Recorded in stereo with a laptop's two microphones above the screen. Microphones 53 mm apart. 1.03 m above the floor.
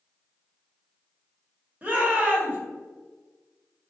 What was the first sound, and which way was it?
A shout, 30° right (ahead or behind).